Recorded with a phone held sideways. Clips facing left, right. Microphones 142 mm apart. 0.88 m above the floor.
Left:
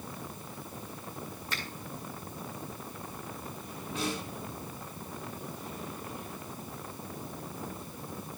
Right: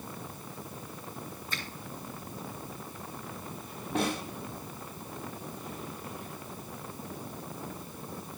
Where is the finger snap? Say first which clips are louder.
Left 1 dB; 80° left, 8 m.